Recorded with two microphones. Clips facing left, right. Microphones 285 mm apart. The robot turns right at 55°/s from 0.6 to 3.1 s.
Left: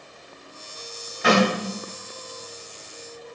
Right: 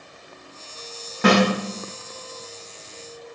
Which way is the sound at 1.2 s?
75° right (ahead or behind).